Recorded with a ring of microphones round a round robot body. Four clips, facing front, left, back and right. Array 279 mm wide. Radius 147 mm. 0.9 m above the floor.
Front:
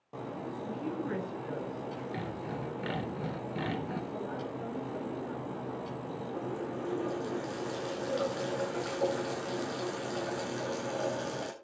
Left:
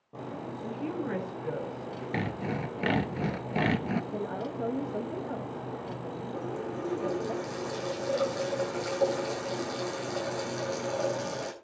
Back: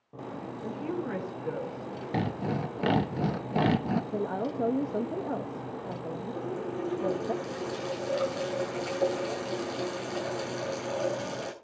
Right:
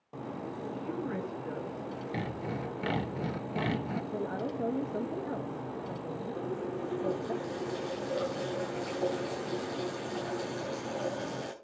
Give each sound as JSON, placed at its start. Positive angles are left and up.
{"t": 0.6, "sound": "a woman speaking", "azimuth_deg": 85, "distance_m": 7.0}
{"t": 2.1, "sound": "sawing", "azimuth_deg": 155, "distance_m": 1.1}
{"t": 4.1, "sound": "a woman speaking", "azimuth_deg": 180, "distance_m": 1.5}
{"t": 6.3, "sound": "a running tap", "azimuth_deg": 75, "distance_m": 8.5}